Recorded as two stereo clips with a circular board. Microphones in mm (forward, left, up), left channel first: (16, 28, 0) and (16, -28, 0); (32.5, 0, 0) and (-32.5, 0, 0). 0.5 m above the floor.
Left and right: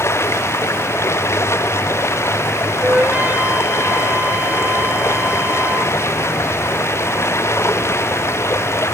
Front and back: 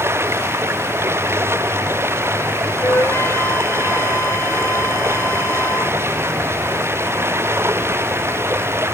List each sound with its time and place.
0.0 s running water: 130° left
2.8 s a flute: 35° right